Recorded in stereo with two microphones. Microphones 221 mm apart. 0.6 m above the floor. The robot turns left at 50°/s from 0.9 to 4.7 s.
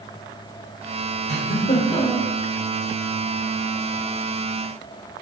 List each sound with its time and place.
1.3 s a giggle: 60° left, 1.9 m; by 2.3 s 10° left, 1.9 m